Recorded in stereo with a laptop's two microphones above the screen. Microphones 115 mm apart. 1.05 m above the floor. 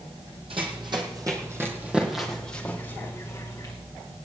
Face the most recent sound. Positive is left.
turn(degrees=30)  # may be behind; listen again after turning